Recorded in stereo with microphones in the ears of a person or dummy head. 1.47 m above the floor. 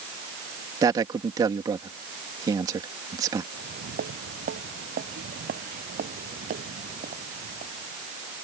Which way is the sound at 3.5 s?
60° right (ahead or behind).